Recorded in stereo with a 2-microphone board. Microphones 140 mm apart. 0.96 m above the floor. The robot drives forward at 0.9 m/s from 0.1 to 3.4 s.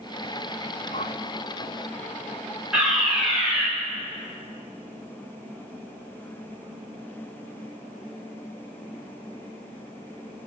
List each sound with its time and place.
0.9 s a whoosh: 60° left (ahead or behind), 0.9 m; by 1.2 s 55° left (ahead or behind), 0.9 m
2.7 s a fire alarm: 5° right (ahead or behind), 7 m